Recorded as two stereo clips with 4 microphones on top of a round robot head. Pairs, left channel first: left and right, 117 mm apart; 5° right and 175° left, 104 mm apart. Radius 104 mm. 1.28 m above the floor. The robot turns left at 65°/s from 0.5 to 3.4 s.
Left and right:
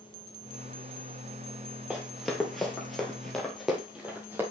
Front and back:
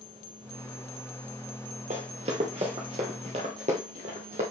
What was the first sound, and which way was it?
Running footsteps, 175° right.